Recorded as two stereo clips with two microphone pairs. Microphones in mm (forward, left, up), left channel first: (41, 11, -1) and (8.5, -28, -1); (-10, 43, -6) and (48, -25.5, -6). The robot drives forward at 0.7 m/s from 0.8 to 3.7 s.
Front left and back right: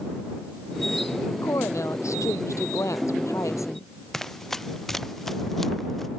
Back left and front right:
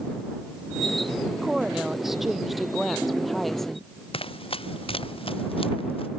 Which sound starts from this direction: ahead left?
A woman speaking, at 1.4 s.